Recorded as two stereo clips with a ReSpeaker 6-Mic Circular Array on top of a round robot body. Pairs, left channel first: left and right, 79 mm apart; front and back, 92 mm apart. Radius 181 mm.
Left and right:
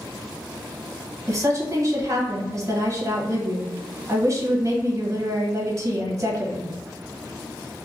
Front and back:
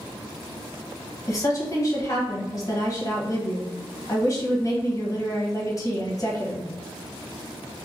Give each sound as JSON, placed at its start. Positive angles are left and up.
{"t": 1.3, "sound": "a woman speaking", "azimuth_deg": -45, "distance_m": 1.4}